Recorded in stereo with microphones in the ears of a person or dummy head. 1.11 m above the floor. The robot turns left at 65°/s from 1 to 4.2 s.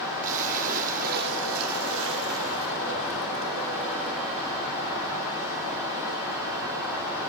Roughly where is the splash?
Ahead right.